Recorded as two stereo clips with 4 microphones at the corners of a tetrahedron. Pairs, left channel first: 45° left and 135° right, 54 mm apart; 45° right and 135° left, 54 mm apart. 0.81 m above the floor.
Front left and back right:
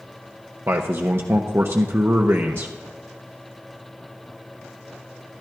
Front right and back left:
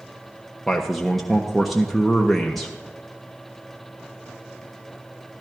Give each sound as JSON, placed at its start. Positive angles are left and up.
{"t": 0.7, "sound": "a man speaking", "azimuth_deg": -130, "distance_m": 0.6}